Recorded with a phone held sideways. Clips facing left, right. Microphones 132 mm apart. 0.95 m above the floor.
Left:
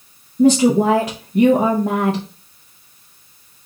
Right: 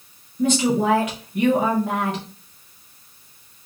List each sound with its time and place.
0.4 s a woman speaking: 35° left (ahead or behind), 0.9 m